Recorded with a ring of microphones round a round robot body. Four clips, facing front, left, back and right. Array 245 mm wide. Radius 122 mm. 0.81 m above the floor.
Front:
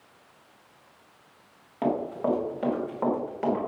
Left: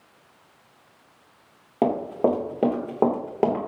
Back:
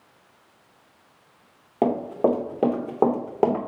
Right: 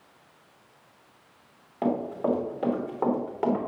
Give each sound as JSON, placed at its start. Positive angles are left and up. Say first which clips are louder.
{"t": 1.8, "sound": "running footsteps", "louder": "left 5 dB, back 5 dB", "azimuth_deg": 130, "distance_m": 4.0}